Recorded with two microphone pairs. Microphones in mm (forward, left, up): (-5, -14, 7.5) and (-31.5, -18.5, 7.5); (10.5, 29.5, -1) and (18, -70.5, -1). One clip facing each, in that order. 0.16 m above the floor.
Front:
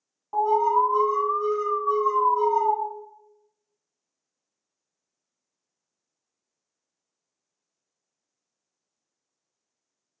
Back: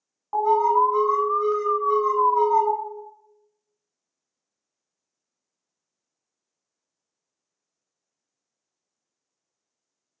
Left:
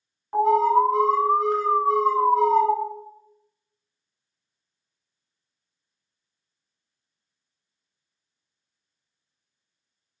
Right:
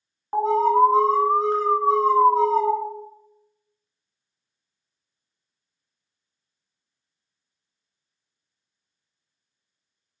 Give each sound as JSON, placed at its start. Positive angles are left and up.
{"t": 0.3, "sound": "an alarm", "azimuth_deg": -130, "distance_m": 0.9}